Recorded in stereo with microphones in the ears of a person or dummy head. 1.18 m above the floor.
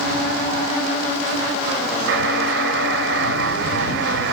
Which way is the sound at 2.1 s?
60° right (ahead or behind).